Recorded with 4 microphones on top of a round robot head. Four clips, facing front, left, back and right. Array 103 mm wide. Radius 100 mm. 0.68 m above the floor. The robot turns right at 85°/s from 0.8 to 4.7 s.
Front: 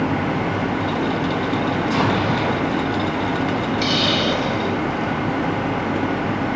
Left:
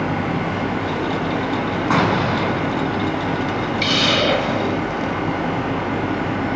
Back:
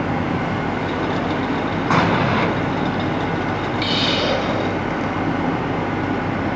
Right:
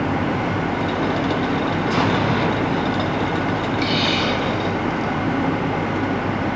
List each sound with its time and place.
1.9 s an explosion: 135° left, 7.5 m; by 2.5 s 175° right, 7.5 m
3.8 s a hiss: 70° left, 2.5 m; by 5.2 s 145° left, 2.5 m